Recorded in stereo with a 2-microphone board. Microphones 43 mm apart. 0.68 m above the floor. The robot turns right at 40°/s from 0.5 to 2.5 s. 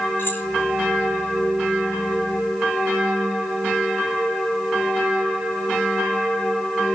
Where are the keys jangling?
55° left (ahead or behind), 4 m.